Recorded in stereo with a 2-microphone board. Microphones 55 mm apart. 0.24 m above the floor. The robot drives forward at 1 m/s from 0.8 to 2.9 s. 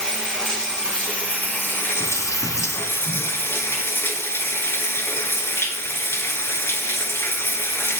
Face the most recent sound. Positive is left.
turn(degrees=50)  # may be behind; listen again after turning